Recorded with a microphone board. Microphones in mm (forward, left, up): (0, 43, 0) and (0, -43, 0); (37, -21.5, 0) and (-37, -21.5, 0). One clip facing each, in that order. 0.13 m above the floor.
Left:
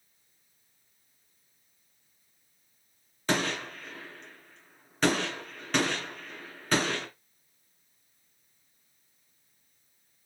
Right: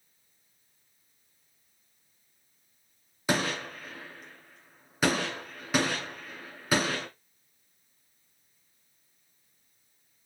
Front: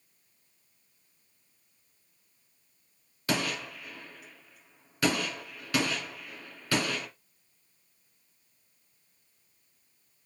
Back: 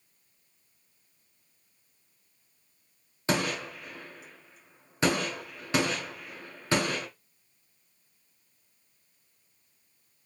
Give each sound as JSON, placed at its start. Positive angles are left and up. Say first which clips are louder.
{"t": 3.3, "sound": "a gunshot", "louder": "even, back 2 dB", "azimuth_deg": -160, "distance_m": 1.7}